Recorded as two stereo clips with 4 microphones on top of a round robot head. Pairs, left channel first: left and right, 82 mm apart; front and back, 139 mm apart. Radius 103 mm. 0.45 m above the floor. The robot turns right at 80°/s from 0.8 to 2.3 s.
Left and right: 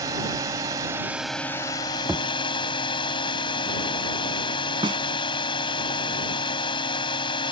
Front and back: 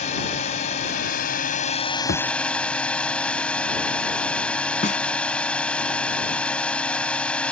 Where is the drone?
40° right; by 7.5 s 80° left.